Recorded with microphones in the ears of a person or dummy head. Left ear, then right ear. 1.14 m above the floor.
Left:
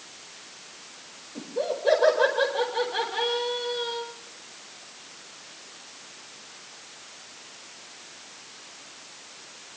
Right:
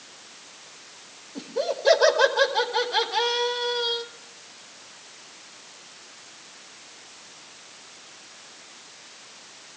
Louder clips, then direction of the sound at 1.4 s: Right 2 dB; 75° right (ahead or behind).